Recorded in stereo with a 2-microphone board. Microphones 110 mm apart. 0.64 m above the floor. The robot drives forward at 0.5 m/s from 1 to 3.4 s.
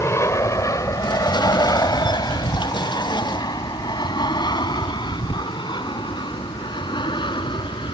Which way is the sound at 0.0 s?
25° left (ahead or behind).